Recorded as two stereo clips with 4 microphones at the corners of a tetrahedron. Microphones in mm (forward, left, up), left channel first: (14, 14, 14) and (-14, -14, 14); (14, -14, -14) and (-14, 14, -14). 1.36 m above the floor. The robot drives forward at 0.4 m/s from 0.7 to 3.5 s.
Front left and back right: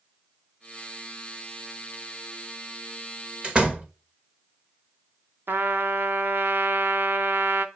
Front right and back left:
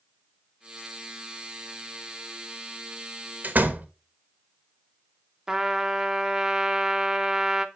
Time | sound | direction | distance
3.4 | a door slam | 165° left | 0.9 m
5.5 | a trumpet | 150° right | 0.8 m